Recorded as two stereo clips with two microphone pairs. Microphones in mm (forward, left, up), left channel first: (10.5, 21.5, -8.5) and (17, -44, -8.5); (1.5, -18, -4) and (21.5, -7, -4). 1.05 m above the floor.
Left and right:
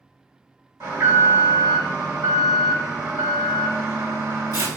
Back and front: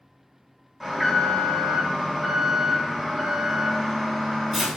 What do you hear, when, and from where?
0.8 s an alarm: 65° right, 3.5 m